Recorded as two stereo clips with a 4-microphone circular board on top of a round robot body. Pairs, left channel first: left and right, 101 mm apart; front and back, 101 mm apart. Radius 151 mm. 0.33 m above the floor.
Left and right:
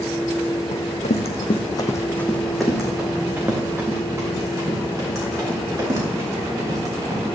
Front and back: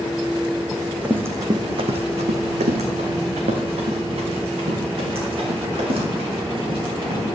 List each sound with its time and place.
0.7 s running footsteps: 90° left, 1.4 m; by 7.2 s 145° right, 6 m